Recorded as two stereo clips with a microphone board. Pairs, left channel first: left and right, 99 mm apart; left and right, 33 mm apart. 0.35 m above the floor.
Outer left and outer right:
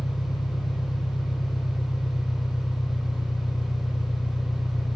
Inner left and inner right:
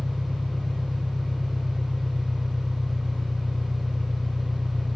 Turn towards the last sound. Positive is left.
turn(degrees=60)  # may be behind; listen again after turning